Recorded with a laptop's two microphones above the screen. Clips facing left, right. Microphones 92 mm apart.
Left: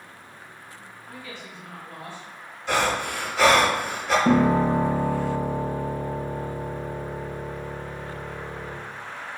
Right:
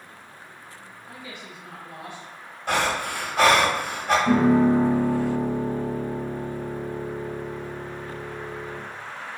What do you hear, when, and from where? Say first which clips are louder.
1.1 s a woman speaking: left 1 dB; 20° right (ahead or behind), 0.8 m
2.7 s breathing: even; 45° right (ahead or behind), 1.2 m
4.2 s a piano: right 2 dB; 55° left (ahead or behind), 0.7 m